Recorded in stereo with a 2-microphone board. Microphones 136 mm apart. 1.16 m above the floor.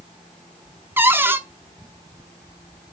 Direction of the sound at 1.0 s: 15° right (ahead or behind).